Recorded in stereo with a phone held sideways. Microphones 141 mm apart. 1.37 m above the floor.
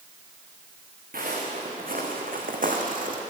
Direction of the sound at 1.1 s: 75° right (ahead or behind).